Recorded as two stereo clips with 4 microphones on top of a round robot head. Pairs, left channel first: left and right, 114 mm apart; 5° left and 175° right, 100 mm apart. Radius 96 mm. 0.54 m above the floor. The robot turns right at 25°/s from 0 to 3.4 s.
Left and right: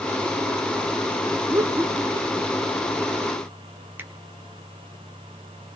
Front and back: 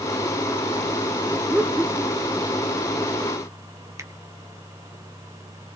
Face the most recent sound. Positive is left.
turn(degrees=-145)